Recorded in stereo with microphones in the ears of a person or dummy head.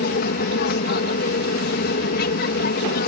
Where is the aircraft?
55° left (ahead or behind).